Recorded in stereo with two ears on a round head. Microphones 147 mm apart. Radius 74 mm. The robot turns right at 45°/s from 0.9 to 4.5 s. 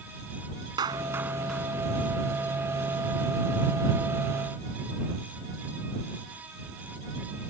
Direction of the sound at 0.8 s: 25° right (ahead or behind).